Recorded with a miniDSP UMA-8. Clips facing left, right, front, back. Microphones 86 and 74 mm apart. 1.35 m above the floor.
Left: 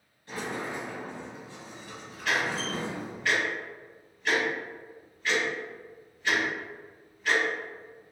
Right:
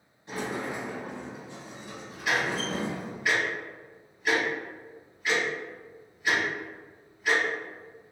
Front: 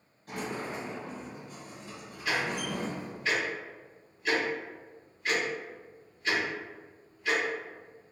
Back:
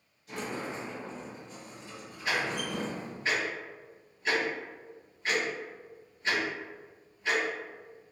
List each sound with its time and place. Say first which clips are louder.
0.3 s a sliding door: right 2 dB, front 1 dB; 25° right, 0.9 m
2.2 s ticking: right 1 dB, even; 160° right, 1.4 m